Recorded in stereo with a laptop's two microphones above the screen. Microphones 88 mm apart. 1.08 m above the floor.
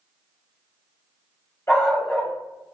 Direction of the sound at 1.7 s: 30° left (ahead or behind).